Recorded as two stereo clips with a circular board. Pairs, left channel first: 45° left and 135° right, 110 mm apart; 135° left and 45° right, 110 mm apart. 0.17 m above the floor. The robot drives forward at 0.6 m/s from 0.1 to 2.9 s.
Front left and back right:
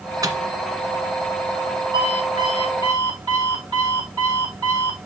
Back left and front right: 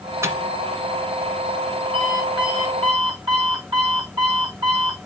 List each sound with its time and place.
0.2 s a microwave: 100° right, 1.5 m
1.9 s an alarm clock: 90° right, 5.5 m; by 5.0 s 95° right, 5.5 m